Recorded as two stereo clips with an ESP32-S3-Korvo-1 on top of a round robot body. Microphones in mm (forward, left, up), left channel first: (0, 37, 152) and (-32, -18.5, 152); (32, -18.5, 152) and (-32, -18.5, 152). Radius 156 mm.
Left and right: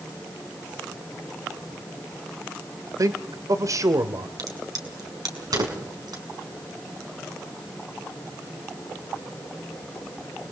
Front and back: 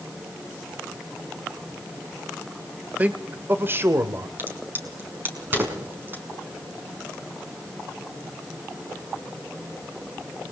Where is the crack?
120° right, 5.5 m.